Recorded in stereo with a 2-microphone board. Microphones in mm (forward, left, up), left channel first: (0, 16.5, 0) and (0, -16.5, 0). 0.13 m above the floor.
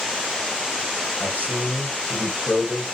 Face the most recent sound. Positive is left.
turn(degrees=-65)  # may be behind; listen again after turning